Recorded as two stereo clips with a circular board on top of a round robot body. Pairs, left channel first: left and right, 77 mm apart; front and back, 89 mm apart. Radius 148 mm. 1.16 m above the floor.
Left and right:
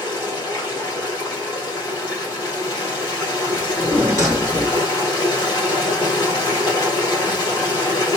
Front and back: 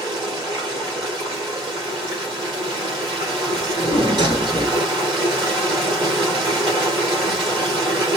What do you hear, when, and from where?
0.0 s running water: 140° left, 2.5 m
3.5 s a drawer: 145° right, 1.6 m